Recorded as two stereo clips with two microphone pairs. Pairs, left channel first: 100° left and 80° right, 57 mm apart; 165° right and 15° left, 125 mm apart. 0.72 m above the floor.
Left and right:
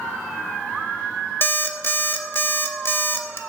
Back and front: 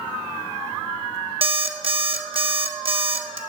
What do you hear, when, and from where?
1.4 s an alarm clock: 55° left, 0.6 m